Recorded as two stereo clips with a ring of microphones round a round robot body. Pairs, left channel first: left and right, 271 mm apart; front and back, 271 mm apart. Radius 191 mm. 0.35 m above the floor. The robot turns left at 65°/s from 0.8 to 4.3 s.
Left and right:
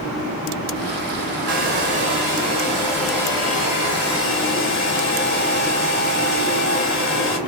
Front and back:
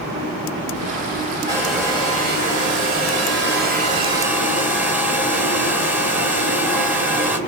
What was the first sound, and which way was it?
A hair dryer, 80° right.